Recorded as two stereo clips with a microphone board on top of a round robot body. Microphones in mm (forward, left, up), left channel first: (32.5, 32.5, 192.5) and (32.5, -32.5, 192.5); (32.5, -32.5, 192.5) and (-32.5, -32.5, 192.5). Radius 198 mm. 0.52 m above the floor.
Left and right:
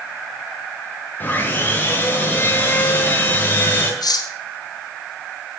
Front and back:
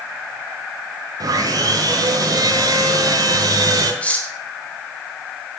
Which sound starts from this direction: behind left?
Sawing, at 1.2 s.